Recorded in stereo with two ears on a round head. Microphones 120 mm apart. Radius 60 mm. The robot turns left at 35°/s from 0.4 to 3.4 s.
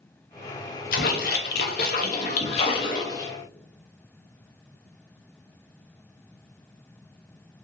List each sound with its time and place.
0.9 s a splash: 100° left, 0.6 m; by 3.3 s 20° left, 0.6 m